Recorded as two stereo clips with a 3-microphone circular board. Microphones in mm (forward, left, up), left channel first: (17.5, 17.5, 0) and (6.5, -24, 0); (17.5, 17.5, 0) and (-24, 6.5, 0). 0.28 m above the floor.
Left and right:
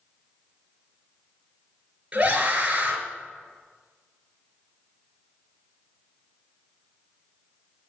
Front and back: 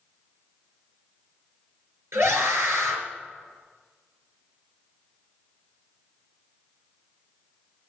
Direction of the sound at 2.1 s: 165° right.